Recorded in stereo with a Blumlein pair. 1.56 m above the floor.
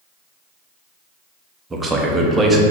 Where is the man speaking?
10° right, 0.6 m.